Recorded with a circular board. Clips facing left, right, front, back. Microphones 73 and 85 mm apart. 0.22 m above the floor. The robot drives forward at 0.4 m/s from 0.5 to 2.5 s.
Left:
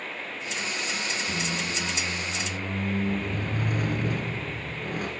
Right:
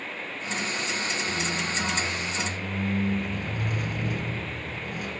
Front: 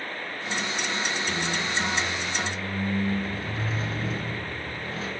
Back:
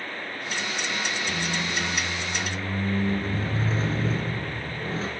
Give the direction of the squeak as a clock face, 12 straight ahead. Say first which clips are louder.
Right 1 dB, front 1 dB; 9 o'clock.